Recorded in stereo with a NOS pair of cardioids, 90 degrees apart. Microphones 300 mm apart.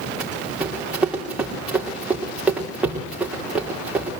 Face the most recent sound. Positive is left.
turn(degrees=-5)